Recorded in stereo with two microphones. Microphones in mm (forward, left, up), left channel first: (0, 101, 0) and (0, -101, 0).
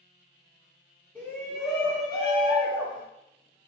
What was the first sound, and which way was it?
A shout, 5° left (ahead or behind).